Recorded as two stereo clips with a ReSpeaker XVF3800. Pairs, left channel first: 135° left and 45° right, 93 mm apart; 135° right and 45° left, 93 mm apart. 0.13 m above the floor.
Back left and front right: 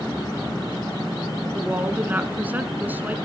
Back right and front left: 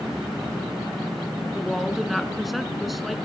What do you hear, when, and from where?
1.5 s a woman speaking: 40° right, 1.1 m